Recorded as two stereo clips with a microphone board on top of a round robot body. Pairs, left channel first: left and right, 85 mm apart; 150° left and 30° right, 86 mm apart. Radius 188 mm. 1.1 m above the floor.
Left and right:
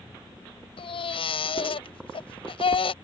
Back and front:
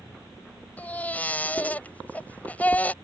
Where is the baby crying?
75° left.